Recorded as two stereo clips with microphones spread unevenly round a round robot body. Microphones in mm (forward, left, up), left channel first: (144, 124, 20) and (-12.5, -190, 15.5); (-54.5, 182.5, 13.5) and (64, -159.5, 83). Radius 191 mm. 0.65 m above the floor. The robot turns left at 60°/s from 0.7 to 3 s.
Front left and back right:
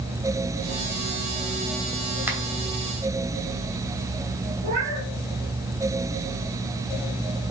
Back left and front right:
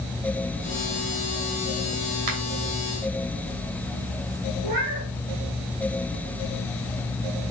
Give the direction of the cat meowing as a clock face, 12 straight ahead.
3 o'clock.